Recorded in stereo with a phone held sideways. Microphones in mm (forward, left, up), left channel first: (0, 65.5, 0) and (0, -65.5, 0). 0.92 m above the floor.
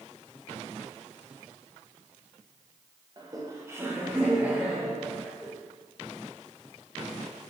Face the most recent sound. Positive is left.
turn(degrees=0)  # may be behind; listen again after turning